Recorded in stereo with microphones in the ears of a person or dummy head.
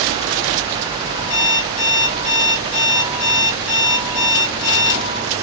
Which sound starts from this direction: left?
An alarm clock, at 1.3 s.